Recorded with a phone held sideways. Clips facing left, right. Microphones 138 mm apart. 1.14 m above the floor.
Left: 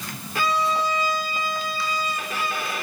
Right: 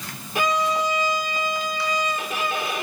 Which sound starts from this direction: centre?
A violin, at 0.3 s.